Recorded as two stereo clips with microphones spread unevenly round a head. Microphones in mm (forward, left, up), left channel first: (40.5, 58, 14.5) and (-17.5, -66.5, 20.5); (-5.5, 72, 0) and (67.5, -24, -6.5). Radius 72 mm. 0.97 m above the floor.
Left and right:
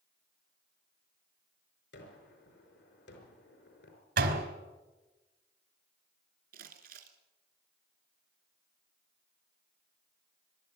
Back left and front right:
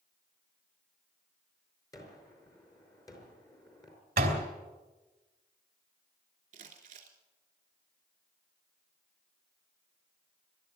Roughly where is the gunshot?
Ahead left.